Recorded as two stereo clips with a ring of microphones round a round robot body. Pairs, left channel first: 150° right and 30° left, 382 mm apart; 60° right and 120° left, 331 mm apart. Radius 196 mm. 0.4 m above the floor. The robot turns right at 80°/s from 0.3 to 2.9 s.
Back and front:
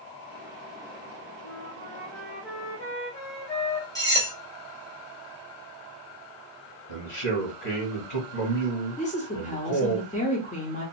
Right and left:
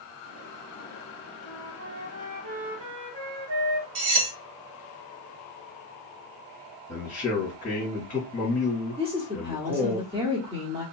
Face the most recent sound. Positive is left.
turn(degrees=170)